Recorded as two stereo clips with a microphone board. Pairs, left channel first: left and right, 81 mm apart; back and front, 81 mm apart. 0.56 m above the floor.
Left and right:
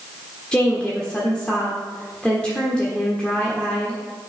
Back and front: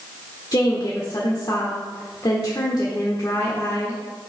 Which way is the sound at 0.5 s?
165° left.